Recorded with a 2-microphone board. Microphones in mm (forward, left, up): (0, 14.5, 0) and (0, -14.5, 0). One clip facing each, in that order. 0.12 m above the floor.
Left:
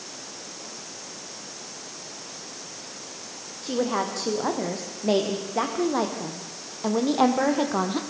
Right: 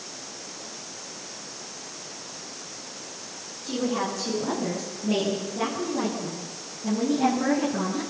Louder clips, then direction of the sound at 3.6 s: Left 2 dB; 65° left (ahead or behind).